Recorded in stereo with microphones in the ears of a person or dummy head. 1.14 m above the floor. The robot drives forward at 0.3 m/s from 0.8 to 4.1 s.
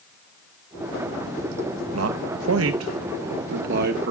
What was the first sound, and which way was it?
A man speaking, 85° right.